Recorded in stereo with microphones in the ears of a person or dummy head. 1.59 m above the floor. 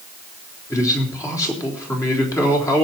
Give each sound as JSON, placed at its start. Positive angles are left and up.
{"t": 0.7, "sound": "a man speaking", "side_deg": 15, "distance_m": 4.0}